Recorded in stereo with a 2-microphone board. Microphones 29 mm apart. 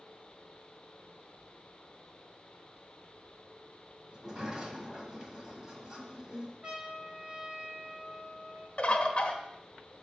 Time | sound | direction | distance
4.1 | a sliding door | 25° right (ahead or behind) | 1.4 m
6.6 | a trumpet | 35° right (ahead or behind) | 2 m
8.8 | a bird | 40° left (ahead or behind) | 1.0 m